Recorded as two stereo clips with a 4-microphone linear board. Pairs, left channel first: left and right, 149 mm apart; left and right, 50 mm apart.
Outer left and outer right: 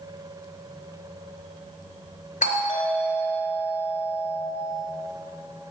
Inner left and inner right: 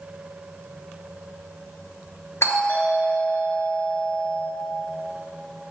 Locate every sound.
2.4 s a doorbell: 55° left (ahead or behind), 3 m